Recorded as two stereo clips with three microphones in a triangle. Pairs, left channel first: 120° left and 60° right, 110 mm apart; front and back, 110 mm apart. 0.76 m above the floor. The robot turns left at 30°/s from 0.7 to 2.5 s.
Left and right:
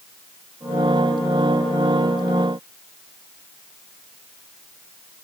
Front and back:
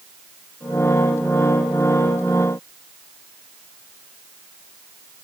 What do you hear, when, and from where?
Only background noise.